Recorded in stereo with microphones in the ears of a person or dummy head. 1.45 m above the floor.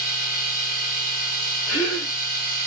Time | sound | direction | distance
0.0 | a machine running | 55° left (ahead or behind) | 2 m
1.7 | a gasp | 35° left (ahead or behind) | 0.8 m